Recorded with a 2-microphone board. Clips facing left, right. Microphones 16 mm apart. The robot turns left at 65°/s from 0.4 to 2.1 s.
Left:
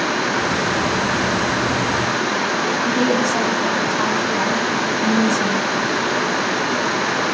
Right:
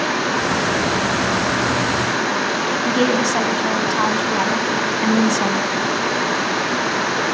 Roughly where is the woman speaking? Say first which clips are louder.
Right 1 dB; right.